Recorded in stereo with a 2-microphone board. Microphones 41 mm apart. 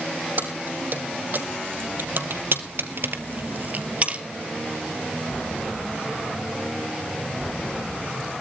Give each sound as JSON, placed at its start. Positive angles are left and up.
{"t": 0.4, "sound": "keys jangling", "side_deg": -50, "distance_m": 4.5}